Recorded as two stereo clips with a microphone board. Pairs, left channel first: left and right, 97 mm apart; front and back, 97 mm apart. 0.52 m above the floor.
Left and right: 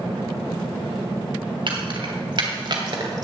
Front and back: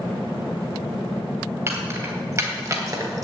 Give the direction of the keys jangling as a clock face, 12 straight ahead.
4 o'clock.